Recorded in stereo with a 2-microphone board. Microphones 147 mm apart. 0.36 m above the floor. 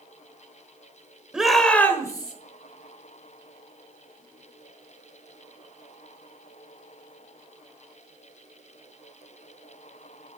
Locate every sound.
1.3 s a shout: 5° right (ahead or behind), 1.5 m; by 2.3 s 30° left (ahead or behind), 1.5 m